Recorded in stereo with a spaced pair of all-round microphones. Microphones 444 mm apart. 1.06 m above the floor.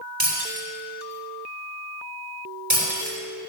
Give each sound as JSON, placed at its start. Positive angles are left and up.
{"t": 0.2, "sound": "breaking glass", "side_deg": -75, "distance_m": 3.0}